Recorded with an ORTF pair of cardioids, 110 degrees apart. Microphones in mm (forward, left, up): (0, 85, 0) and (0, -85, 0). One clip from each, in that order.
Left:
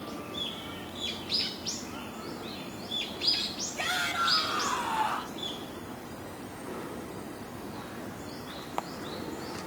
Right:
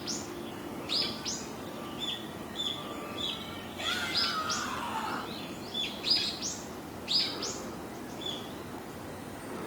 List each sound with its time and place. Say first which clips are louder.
3.8 s a shout: left 2 dB; 50° left, 8.5 m; by 5.4 s 45° left, 9 m